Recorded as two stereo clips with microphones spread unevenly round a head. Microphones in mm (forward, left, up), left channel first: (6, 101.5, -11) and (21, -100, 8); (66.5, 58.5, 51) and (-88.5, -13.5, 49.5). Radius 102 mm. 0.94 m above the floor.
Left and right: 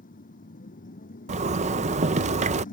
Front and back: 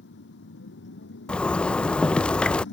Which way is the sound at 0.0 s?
40° left.